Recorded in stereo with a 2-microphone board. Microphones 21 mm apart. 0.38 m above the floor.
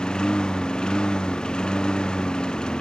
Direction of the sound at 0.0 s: 50° left (ahead or behind).